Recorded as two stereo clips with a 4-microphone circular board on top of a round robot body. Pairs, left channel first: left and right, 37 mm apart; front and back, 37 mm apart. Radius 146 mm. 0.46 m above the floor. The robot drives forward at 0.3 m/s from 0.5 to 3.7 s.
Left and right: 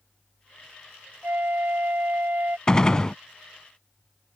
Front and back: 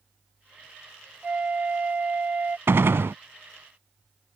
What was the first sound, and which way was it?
A flute, 125° right.